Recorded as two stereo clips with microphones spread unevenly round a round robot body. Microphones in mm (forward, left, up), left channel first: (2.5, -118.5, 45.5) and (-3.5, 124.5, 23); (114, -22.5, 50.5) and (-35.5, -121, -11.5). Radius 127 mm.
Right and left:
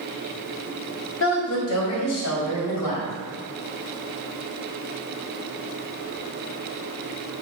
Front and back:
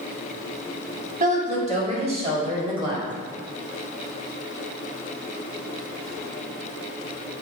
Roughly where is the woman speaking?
Behind right.